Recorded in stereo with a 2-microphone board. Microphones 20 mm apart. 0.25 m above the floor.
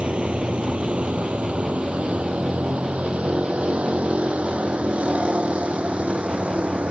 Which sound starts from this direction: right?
A vehicle, at 0.0 s.